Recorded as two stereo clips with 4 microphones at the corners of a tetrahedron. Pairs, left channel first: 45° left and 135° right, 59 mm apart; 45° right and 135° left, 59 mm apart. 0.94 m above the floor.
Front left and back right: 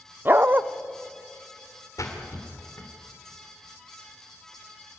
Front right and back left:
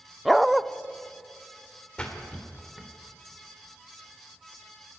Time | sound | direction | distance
0.2 | a dog barking | 135° right | 0.5 m
2.0 | a splash | 25° left | 3 m